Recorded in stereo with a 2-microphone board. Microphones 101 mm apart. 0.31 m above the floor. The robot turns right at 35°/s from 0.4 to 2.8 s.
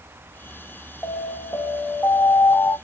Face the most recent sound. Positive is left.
turn(degrees=115)